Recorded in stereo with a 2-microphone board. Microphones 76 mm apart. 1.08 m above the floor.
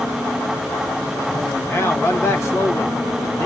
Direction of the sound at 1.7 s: 35° left (ahead or behind).